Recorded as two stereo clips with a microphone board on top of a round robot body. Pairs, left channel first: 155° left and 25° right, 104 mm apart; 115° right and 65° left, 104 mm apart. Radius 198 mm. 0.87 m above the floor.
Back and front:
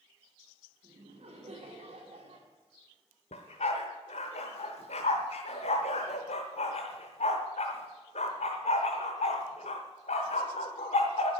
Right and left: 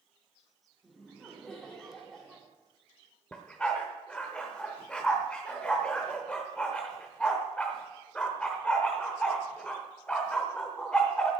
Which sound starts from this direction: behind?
A dog barking, at 3.3 s.